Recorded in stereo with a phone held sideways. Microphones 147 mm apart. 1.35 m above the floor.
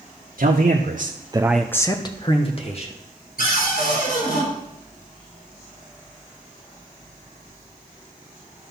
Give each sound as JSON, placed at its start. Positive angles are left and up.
{"t": 0.4, "sound": "a man speaking", "side_deg": -75, "distance_m": 1.3}
{"t": 3.4, "sound": "a cupboard door", "side_deg": 85, "distance_m": 4.5}